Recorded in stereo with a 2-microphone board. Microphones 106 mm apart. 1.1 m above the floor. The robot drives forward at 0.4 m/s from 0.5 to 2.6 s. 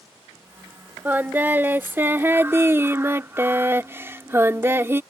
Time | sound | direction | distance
1.1 | singing | 15° right (ahead or behind) | ?